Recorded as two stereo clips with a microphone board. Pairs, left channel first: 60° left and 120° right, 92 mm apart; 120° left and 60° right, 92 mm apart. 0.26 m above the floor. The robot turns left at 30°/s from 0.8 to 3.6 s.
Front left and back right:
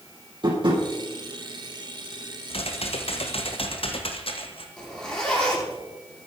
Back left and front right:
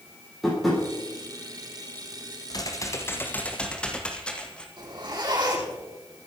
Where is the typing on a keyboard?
75° left, 2 m; by 4.7 s 40° left, 2 m.